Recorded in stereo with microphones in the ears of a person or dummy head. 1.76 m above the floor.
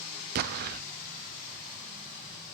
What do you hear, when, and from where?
0.3 s an explosion: 50° right (ahead or behind), 0.6 m